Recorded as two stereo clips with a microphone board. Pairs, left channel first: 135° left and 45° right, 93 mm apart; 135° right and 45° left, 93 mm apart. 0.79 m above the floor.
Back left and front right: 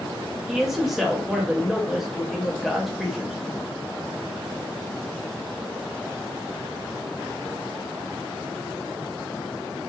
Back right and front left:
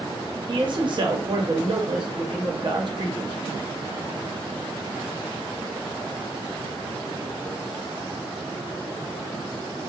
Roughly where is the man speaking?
Ahead left.